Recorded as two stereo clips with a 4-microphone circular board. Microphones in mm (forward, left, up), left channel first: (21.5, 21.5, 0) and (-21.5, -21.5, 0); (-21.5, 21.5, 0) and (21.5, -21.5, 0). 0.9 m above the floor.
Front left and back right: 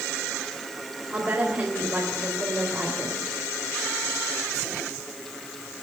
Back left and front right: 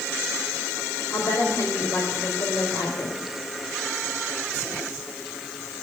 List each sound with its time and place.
1.1 s a woman speaking: 155° left, 3.5 m